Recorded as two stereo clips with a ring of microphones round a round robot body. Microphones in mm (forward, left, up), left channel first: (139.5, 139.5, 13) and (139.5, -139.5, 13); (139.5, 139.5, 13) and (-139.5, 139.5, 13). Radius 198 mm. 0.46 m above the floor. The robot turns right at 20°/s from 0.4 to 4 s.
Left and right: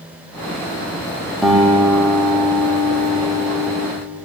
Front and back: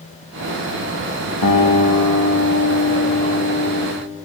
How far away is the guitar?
About 3.5 m.